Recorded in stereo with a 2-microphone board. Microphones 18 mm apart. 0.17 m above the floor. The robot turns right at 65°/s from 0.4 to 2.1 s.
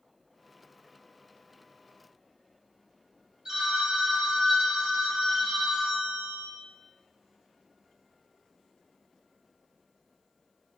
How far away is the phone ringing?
About 1.0 m.